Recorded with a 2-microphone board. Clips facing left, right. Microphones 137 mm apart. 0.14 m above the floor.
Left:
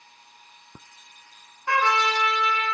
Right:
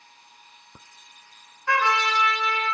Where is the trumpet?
20° left (ahead or behind), 1.8 m.